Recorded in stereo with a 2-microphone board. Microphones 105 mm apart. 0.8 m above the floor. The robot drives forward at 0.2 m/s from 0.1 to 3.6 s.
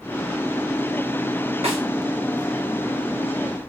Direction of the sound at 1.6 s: 70° right (ahead or behind).